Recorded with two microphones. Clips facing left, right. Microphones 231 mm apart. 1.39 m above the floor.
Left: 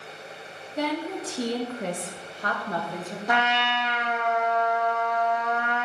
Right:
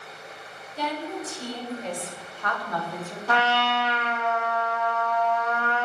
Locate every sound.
0.8 s a woman speaking: 60° left (ahead or behind), 1.2 m; by 3.2 s 15° left (ahead or behind), 1.5 m
3.3 s a trumpet: 15° left (ahead or behind), 0.7 m